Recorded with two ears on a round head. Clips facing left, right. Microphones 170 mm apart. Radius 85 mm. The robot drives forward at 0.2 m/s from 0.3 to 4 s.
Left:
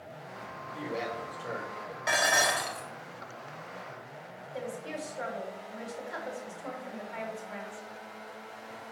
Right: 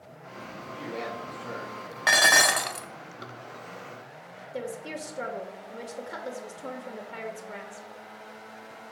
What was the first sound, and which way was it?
A man speaking, 15° left (ahead or behind).